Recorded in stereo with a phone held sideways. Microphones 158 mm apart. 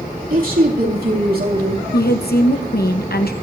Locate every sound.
0.3 s a woman speaking: 65° right (ahead or behind), 3 m; by 1.8 s 80° right, 2.5 m
1.9 s a woman speaking: 85° left, 1.0 m